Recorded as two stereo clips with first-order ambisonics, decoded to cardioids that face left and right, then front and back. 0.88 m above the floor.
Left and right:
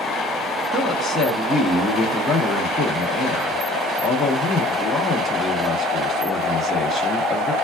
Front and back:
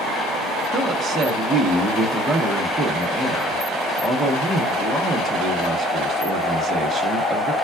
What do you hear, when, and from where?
0.7 s a woman speaking: 115° left, 0.7 m